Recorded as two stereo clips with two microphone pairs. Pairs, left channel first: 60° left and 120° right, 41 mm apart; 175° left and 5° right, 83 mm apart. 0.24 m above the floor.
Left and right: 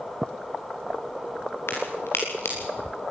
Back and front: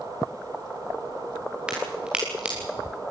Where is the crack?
70° left, 6.5 m.